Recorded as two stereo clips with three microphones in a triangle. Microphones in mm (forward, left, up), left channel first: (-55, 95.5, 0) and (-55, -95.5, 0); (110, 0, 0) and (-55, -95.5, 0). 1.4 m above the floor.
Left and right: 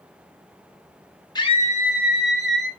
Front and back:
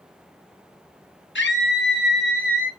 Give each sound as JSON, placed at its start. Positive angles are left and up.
{"t": 1.4, "sound": "a scream", "azimuth_deg": 25, "distance_m": 1.0}